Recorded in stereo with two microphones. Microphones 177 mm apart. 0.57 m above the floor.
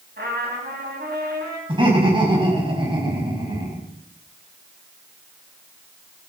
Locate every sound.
0.2 s a trumpet: 70° right (ahead or behind), 3.5 m
1.7 s laughter: 30° right (ahead or behind), 5 m